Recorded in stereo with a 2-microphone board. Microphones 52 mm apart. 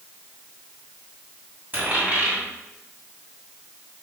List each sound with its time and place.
1.7 s a dropped coin: 35° right (ahead or behind), 2 m